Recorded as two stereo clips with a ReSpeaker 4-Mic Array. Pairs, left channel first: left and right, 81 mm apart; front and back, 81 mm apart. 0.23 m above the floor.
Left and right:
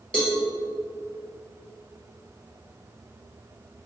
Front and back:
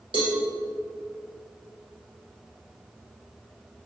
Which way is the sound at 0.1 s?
170° left.